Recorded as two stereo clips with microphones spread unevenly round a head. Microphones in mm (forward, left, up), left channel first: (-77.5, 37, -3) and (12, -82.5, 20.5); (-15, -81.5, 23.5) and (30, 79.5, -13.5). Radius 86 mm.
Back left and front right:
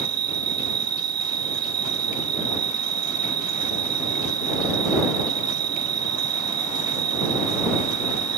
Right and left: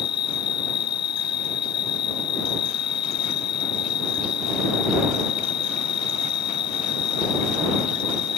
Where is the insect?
75° right.